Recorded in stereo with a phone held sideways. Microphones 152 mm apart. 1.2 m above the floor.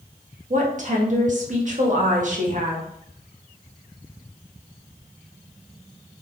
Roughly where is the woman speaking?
Right.